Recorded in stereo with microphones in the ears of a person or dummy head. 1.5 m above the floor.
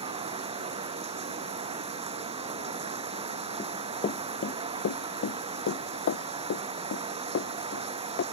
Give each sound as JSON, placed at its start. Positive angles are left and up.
{"t": 0.0, "sound": "running water", "side_deg": -30}
{"t": 3.6, "sound": "running footsteps", "side_deg": 10}